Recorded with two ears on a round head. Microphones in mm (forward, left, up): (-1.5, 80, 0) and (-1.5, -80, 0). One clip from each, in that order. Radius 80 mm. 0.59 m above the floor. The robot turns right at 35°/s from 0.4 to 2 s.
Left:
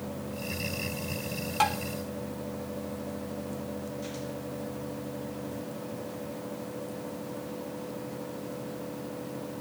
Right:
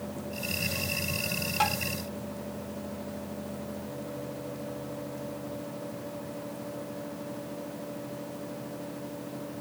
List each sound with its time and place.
1.6 s tapping: 10° left (ahead or behind); by 1.8 s 20° left (ahead or behind)